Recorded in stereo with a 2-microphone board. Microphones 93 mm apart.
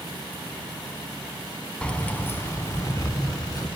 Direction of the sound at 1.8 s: 10° left (ahead or behind).